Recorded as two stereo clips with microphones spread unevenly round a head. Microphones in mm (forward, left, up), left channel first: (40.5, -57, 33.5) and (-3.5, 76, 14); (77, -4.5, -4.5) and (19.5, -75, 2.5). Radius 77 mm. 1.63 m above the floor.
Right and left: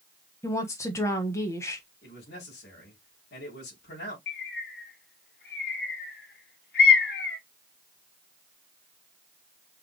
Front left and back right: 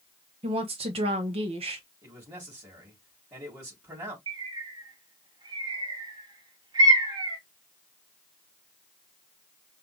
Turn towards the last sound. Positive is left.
turn(degrees=-90)